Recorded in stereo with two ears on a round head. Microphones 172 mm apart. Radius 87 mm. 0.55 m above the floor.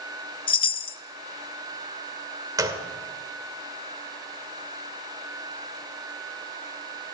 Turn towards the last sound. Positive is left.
turn(degrees=-20)  # may be behind; listen again after turning